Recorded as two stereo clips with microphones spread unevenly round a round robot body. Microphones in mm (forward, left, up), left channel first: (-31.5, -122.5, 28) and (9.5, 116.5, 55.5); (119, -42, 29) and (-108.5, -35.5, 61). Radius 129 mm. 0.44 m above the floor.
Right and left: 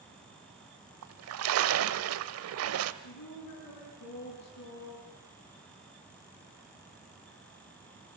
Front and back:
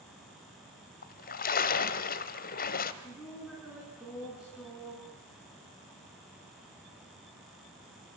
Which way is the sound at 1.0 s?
50° left.